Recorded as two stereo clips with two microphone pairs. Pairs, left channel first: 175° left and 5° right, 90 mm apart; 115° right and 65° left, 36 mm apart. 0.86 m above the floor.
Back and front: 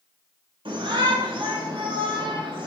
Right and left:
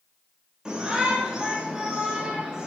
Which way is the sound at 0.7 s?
5° right.